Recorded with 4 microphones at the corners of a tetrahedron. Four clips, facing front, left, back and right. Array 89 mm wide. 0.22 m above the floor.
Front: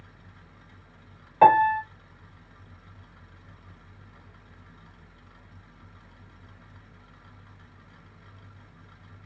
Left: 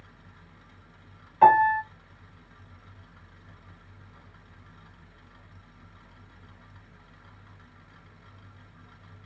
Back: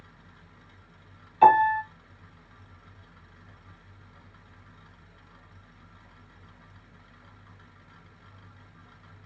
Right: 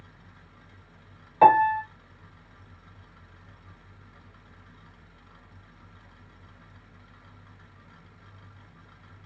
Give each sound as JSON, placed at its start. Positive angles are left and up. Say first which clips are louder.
{"t": 1.4, "sound": "a piano", "louder": "even, front 1 dB", "azimuth_deg": -30, "distance_m": 3.5}